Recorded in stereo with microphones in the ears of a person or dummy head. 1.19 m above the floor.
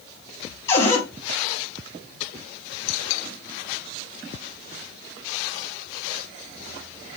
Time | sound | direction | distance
0.7 | a cupboard door | 15° left (ahead or behind) | 1.1 m